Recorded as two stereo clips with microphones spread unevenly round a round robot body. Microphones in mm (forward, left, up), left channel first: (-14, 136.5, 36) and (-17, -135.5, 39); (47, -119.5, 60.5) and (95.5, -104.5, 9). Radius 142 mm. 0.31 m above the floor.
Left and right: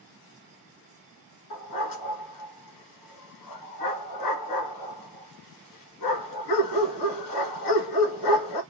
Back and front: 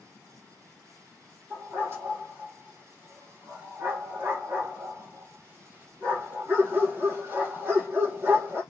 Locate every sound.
1.5 s a dog barking: 80° left, 1.2 m